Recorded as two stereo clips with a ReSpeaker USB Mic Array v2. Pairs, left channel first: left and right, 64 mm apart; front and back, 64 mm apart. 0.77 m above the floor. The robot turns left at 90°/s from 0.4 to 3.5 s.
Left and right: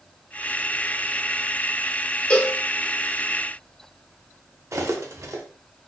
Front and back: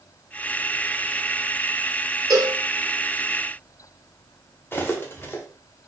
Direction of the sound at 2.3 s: 165° left.